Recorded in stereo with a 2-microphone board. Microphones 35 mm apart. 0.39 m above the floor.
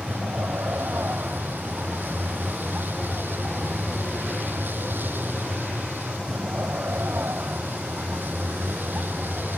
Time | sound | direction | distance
0.0 | a vehicle | 70° right (ahead or behind) | ?